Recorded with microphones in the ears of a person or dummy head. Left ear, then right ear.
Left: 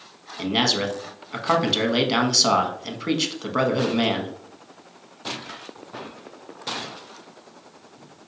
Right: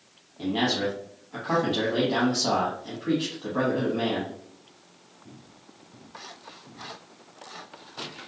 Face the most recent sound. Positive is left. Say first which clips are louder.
# left 4 dB
turn(degrees=65)  # may be behind; listen again after turning